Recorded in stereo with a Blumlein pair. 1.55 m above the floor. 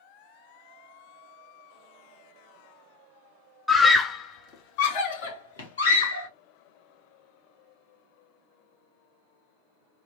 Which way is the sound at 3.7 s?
5° left.